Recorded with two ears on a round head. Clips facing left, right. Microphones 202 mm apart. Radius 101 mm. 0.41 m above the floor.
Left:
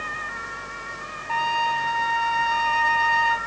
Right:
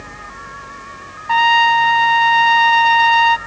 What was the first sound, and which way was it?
A trumpet, 70° right (ahead or behind).